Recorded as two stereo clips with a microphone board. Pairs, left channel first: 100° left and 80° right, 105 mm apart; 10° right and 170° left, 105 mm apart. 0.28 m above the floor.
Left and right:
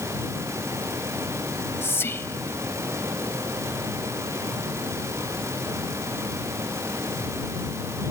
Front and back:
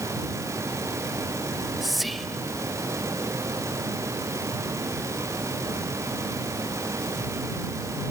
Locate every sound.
1.5 s whispering: 80° left